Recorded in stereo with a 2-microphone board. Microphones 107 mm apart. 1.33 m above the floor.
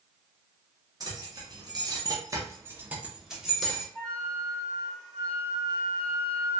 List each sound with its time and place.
1.0 s keys jangling: 35° right (ahead or behind), 0.9 m; by 3.9 s 5° left (ahead or behind), 0.9 m
4.0 s a flute: centre (ahead or behind), 1.3 m